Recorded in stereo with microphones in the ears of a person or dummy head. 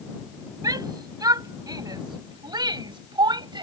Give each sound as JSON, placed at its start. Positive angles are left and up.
{"t": 0.6, "sound": "a shout", "side_deg": -20}